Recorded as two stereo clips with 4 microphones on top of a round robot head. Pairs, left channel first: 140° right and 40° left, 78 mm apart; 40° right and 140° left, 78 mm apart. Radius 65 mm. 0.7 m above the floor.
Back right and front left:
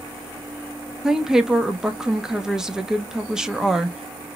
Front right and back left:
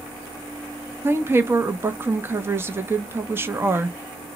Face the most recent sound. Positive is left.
turn(degrees=115)